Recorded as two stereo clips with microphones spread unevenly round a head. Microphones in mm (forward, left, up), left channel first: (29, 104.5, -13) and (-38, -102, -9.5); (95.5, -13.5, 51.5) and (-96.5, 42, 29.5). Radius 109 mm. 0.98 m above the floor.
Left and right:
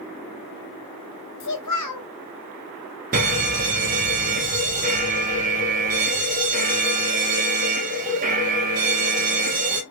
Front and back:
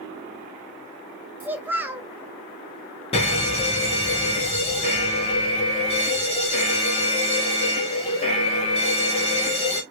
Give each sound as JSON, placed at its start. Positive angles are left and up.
{"t": 1.4, "sound": "a child speaking", "azimuth_deg": 85, "distance_m": 1.1}
{"t": 3.1, "sound": "a fire alarm", "azimuth_deg": -70, "distance_m": 1.5}